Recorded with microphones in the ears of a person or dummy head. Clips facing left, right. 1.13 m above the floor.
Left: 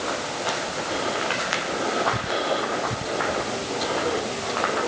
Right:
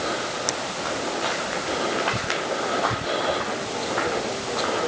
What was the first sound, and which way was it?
Only background noise.